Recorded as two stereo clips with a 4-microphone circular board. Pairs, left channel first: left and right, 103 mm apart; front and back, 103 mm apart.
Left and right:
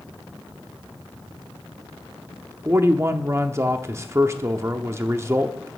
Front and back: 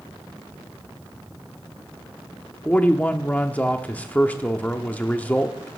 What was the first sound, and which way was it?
A man speaking, 60° right.